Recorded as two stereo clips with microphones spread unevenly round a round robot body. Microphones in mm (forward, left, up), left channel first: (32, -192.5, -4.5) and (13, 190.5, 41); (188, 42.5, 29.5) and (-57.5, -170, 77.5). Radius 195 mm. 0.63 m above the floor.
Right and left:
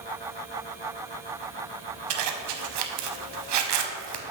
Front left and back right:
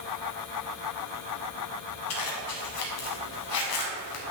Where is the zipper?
90° left, 0.6 m.